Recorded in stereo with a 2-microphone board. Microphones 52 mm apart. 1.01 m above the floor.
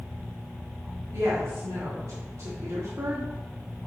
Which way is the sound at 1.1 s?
65° right (ahead or behind).